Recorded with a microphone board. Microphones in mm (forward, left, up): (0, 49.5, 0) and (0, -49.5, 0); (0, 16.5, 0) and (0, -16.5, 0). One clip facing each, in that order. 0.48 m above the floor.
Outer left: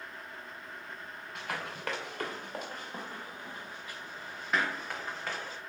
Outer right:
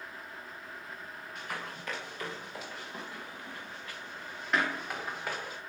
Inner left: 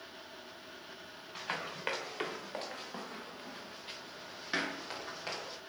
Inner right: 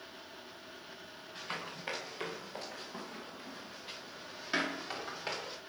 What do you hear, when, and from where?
1.4 s running footsteps: 75° left (ahead or behind), 3.5 m; by 5.6 s 10° right (ahead or behind), 4.5 m